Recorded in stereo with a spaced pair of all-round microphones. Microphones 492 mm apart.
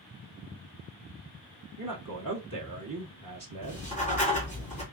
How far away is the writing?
About 2.0 m.